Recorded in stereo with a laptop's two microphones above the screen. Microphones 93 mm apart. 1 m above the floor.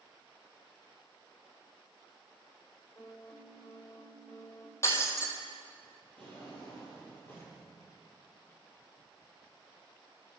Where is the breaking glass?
30° left (ahead or behind), 3 m.